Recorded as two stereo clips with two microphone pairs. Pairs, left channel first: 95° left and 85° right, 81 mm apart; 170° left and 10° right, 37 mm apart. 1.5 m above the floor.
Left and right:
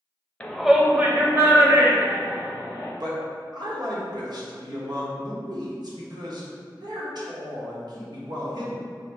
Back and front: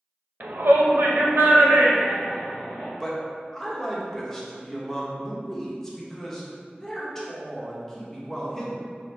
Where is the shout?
20° left, 0.5 m; by 2.9 s 45° right, 2.0 m.